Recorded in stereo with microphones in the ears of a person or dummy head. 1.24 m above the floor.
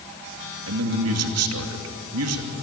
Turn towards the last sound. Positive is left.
turn(degrees=-80)